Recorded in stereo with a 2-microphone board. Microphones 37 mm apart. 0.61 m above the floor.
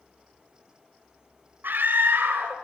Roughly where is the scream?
Right.